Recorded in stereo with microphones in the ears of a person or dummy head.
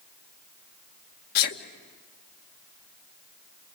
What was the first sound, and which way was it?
A sneeze, 50° left (ahead or behind).